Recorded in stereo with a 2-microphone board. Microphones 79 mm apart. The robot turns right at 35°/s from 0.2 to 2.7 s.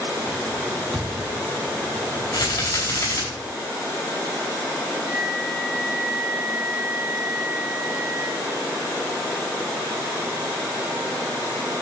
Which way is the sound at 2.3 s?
45° left (ahead or behind).